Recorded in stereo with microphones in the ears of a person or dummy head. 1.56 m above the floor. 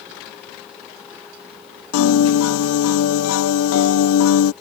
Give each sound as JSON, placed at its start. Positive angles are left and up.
{"t": 1.9, "sound": "a piano", "side_deg": 90}